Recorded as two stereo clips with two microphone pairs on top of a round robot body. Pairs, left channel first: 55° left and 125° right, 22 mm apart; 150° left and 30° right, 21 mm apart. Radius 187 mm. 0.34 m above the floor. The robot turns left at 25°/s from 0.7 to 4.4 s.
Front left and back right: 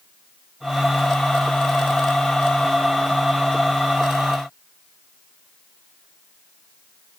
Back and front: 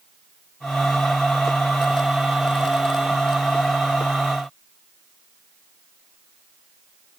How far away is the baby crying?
I don't hear a baby crying.